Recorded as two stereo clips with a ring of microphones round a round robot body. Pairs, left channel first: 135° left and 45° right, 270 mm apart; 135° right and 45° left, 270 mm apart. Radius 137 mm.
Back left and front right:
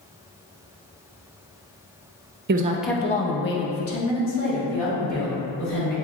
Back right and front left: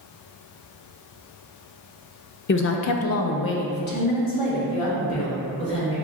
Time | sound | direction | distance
2.5 | a woman speaking | 90° right | 0.5 m